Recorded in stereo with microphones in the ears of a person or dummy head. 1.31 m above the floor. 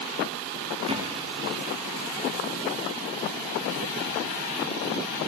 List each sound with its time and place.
0.9 s a thud: 30° right (ahead or behind), 3.5 m